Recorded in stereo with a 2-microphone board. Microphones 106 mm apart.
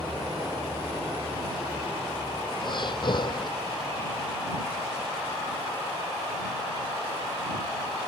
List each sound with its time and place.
2.6 s breathing: 50° left (ahead or behind)